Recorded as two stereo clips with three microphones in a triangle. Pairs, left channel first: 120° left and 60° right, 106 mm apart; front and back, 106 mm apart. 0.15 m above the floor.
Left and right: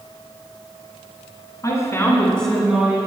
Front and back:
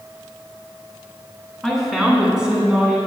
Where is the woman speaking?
90° left, 1.9 m; by 3.0 s 110° right, 1.7 m.